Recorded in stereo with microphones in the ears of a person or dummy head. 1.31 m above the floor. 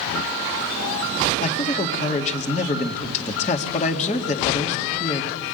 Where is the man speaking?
40° left (ahead or behind), 2 m.